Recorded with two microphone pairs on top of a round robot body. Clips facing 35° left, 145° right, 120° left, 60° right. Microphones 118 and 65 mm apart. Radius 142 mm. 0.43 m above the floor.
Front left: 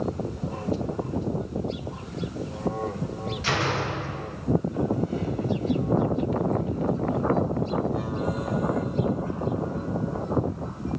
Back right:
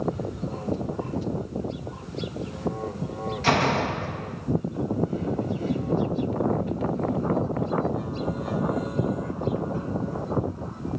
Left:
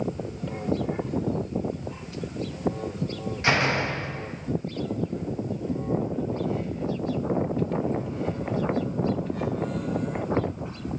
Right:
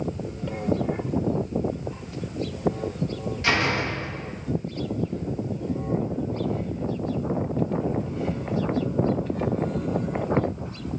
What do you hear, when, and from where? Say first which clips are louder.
3.4 s a door slam: back right 5 dB, even; 175° right, 3 m